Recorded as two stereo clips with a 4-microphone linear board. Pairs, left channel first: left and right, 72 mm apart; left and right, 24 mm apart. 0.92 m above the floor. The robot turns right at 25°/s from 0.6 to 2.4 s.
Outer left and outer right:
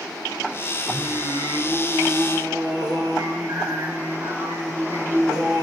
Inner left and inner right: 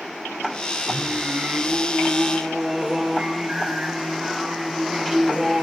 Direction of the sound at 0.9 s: 115° right.